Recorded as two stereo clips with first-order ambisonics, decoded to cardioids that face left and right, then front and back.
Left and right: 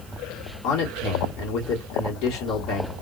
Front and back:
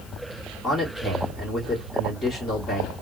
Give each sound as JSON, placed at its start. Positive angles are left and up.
{"t": 0.6, "sound": "a man speaking", "azimuth_deg": 80, "distance_m": 1.4}